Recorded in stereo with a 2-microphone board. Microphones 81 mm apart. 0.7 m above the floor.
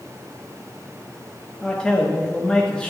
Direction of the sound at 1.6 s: 10° left (ahead or behind).